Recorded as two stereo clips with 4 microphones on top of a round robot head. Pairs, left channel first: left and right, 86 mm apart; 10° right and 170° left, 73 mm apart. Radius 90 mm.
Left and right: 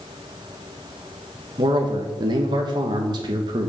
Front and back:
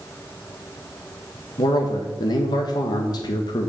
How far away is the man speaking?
About 1.2 m.